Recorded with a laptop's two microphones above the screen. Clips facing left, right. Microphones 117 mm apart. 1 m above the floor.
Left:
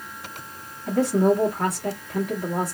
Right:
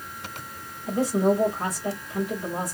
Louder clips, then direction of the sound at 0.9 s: Left 2 dB; 60° left (ahead or behind).